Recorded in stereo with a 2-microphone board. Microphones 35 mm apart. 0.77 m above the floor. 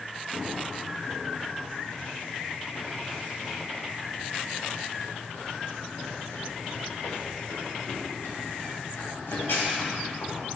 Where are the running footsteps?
5° right (ahead or behind), 3 m; by 10.4 s 85° left, 9.5 m.